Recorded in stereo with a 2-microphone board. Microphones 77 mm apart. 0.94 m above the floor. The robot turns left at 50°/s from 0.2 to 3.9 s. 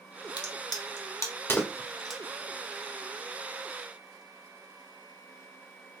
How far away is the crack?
About 0.9 m.